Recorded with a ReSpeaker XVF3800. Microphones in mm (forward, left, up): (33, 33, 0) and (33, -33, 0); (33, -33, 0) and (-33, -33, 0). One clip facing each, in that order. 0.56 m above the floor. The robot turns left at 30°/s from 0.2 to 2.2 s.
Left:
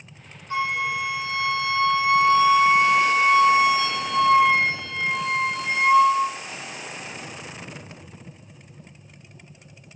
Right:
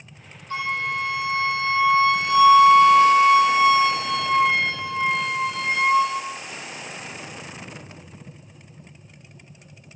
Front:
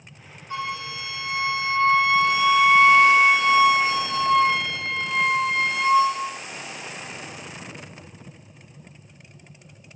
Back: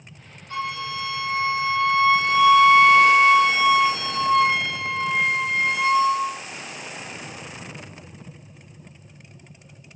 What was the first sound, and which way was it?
A flute, 65° left.